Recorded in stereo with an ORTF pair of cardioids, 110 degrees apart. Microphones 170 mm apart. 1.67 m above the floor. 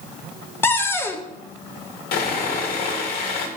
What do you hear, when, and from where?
0.6 s a cupboard door: 15° left, 0.8 m
2.1 s sawing: 70° left, 2 m